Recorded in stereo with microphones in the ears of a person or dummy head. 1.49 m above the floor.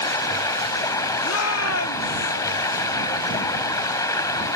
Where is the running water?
25° left (ahead or behind).